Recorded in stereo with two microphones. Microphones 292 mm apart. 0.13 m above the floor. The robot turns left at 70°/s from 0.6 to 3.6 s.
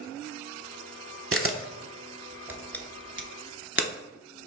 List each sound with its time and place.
1.3 s a camera shutter: 45° right (ahead or behind), 0.6 m; by 3.9 s 45° left (ahead or behind), 0.6 m